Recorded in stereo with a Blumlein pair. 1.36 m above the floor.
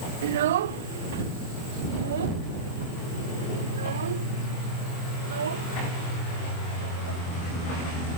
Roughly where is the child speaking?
Ahead right.